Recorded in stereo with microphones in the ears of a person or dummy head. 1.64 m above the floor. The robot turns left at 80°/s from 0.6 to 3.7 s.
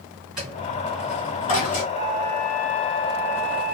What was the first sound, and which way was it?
A dropped coin, 5° right (ahead or behind).